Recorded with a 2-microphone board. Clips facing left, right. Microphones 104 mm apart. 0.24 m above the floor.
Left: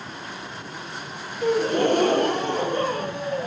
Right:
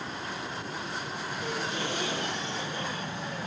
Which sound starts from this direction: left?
A gasp, at 1.4 s.